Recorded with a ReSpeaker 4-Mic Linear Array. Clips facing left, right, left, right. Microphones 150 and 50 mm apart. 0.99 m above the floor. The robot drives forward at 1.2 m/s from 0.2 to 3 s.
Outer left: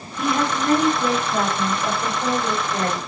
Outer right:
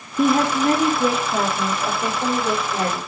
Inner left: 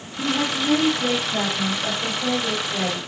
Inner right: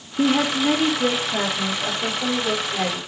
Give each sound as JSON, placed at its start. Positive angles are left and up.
{"t": 0.2, "sound": "a woman speaking", "side_deg": -50, "distance_m": 0.7}